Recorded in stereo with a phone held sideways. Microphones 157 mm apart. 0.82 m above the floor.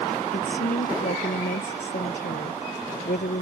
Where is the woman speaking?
85° left.